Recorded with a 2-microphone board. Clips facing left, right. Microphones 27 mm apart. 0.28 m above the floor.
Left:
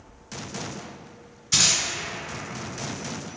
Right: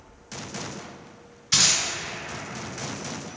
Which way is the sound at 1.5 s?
20° right (ahead or behind).